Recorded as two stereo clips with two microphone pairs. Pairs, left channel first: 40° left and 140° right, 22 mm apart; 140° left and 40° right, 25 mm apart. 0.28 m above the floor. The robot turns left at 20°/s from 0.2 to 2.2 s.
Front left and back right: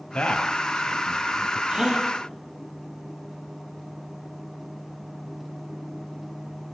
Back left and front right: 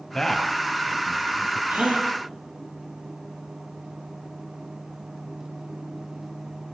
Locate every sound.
0.1 s a man speaking: 60° left, 5.5 m; by 1.6 s 35° left, 5.5 m
1.7 s a gasp: 65° right, 8 m; by 2.1 s 75° right, 8 m